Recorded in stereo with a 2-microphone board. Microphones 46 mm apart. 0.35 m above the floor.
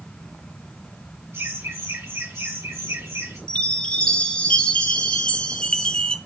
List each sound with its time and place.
1.3 s laughter: 65° right (ahead or behind), 4.5 m; by 3.4 s 70° right (ahead or behind), 3.5 m
3.5 s a chime: 20° left (ahead or behind), 1.1 m